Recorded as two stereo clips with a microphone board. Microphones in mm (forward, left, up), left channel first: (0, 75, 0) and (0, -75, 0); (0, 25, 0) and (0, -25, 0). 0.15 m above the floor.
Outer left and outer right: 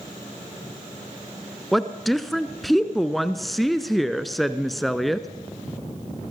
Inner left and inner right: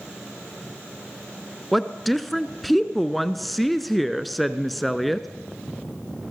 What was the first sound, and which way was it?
A woman speaking, centre (ahead or behind).